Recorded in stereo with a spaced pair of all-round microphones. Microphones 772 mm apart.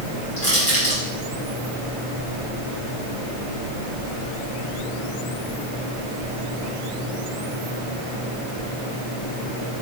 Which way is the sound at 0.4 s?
20° left (ahead or behind).